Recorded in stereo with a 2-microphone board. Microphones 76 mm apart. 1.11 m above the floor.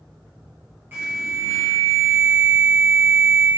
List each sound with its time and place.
0.9 s an alarm: 30° right (ahead or behind), 4 m